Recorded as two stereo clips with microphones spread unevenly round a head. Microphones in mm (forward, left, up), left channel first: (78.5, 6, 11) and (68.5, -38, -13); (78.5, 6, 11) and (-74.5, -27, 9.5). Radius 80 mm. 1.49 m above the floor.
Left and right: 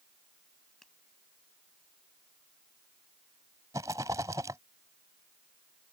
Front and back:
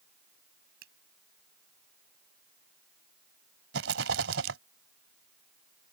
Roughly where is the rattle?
Behind.